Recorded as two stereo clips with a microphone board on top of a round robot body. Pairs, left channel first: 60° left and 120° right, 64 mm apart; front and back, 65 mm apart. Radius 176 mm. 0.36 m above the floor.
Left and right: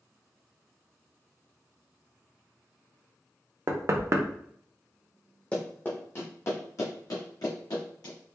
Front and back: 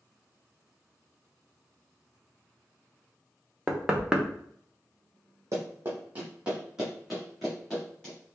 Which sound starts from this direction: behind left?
Running footsteps, at 5.5 s.